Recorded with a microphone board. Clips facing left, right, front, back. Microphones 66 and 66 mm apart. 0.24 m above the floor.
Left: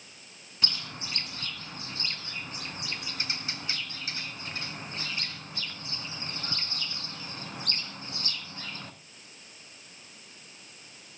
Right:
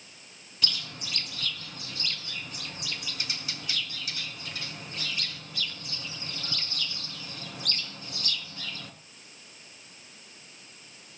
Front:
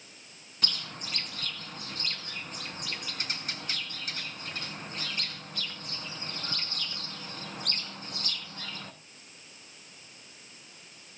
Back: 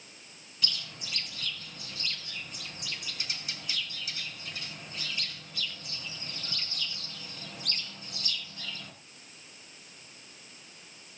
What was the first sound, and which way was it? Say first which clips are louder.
A bird: right 1 dB, front 2 dB; 30° left.